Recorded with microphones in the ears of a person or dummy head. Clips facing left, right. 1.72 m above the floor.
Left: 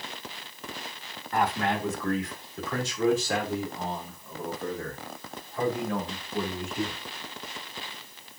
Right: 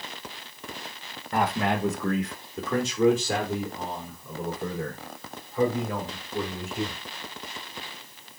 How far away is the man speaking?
About 2 m.